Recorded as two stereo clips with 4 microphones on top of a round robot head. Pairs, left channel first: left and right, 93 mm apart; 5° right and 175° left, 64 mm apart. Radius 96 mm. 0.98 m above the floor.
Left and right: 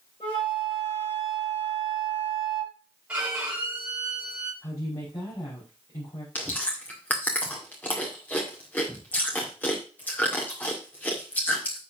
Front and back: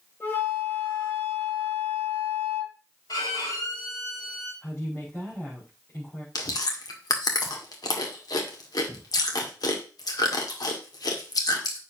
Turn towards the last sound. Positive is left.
turn(degrees=15)